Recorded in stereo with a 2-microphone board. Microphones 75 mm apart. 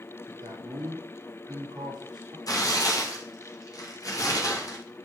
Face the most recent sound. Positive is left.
turn(degrees=50)  # may be behind; listen again after turning